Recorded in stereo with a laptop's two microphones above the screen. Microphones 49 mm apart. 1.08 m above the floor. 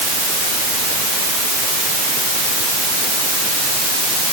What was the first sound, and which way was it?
Only background noise.